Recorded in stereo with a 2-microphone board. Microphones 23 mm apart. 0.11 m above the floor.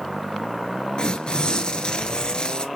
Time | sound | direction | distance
1.0 | tearing paper | 45° left (ahead or behind) | 0.7 m